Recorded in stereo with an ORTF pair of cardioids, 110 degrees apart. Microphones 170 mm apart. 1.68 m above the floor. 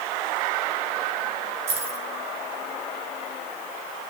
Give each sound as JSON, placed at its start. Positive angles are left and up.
{"t": 1.7, "sound": "keys jangling", "azimuth_deg": -45, "distance_m": 5.0}